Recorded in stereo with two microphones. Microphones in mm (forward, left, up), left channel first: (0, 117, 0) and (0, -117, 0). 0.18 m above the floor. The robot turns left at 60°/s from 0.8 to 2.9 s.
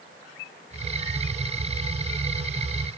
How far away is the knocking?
No knocking in this recording.